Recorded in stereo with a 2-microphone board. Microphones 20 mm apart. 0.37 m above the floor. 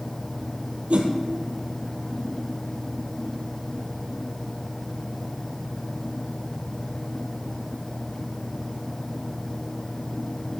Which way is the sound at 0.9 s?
85° right.